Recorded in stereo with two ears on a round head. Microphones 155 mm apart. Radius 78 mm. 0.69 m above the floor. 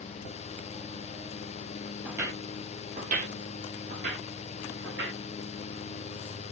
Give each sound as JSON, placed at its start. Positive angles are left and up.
{"t": 2.0, "sound": "footsteps", "side_deg": -10, "distance_m": 0.8}